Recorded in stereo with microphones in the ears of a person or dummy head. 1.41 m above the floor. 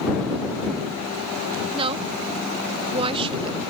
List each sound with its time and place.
1.7 s a woman speaking: 25° right (ahead or behind)